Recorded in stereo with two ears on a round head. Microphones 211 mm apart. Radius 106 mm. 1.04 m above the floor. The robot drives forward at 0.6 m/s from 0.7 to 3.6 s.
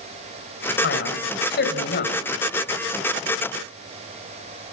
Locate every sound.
0.8 s a man speaking: 45° left (ahead or behind), 5 m; by 2.1 s 40° left (ahead or behind), 5.5 m